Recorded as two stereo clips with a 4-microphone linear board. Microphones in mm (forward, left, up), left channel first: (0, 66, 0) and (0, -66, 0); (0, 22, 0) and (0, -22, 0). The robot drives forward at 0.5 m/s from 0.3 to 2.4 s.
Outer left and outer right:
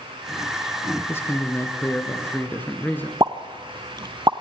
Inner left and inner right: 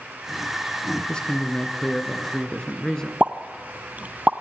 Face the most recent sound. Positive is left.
turn(degrees=-35)  # may be behind; listen again after turning